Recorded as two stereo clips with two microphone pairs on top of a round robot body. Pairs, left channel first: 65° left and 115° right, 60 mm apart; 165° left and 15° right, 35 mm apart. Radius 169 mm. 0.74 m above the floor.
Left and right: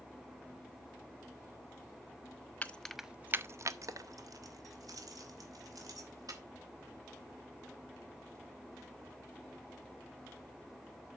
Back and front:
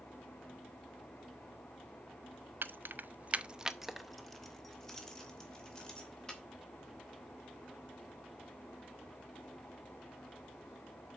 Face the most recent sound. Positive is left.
turn(degrees=-130)